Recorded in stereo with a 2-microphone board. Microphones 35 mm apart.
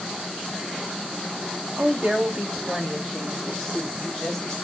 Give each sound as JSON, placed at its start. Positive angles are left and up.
{"t": 1.8, "sound": "a woman speaking", "side_deg": -45, "distance_m": 2.0}